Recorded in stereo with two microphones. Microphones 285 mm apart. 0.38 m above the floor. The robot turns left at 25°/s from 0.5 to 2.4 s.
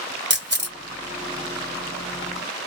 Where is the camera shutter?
40° right (ahead or behind), 0.9 m; by 0.8 s 35° right (ahead or behind), 0.9 m.